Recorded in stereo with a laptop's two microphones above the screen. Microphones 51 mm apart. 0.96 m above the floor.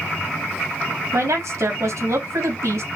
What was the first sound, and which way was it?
A woman speaking, 60° right (ahead or behind).